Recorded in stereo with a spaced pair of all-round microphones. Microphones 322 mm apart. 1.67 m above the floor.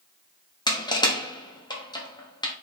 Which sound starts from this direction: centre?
Crushing, at 0.7 s.